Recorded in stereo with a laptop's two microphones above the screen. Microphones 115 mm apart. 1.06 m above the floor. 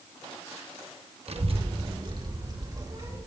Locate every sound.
1.3 s a child speaking: 65° right (ahead or behind), 1.2 m; by 3.2 s 30° right (ahead or behind), 3.5 m